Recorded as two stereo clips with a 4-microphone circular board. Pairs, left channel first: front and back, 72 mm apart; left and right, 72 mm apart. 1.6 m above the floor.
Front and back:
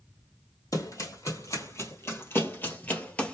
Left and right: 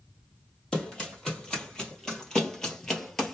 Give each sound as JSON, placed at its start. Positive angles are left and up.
{"t": 0.7, "sound": "running footsteps", "azimuth_deg": 10, "distance_m": 2.5}